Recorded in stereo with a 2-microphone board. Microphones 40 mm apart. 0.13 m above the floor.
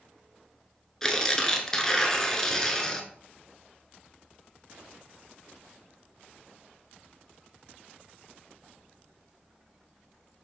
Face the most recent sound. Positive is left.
turn(degrees=15)  # may be behind; listen again after turning